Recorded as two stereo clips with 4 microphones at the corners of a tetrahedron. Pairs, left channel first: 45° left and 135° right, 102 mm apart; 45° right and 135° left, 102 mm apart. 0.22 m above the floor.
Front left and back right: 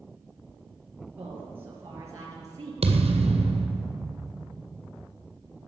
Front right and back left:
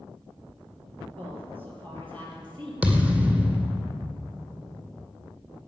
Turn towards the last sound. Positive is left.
turn(degrees=-145)